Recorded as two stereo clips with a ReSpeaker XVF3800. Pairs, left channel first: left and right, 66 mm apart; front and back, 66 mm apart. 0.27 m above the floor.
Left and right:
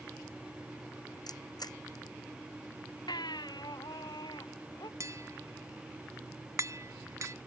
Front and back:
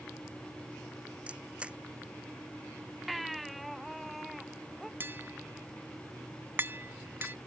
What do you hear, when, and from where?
1.3 s a camera shutter: 110° left
3.1 s a baby crying: 90° left
5.0 s tapping: 125° right